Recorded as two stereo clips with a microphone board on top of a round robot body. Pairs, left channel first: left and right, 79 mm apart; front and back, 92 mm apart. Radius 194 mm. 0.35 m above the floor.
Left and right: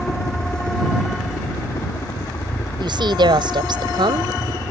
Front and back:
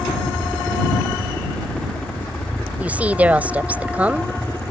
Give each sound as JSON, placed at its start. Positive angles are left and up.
{"t": 0.0, "sound": "a helicopter", "azimuth_deg": 75}
{"t": 2.8, "sound": "a woman speaking", "azimuth_deg": -105}